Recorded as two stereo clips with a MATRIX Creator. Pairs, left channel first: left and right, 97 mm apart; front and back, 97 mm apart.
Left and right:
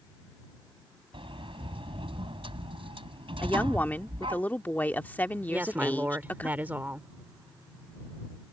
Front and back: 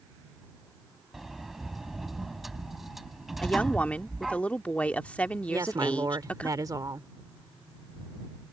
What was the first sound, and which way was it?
A sliding door, 90° right.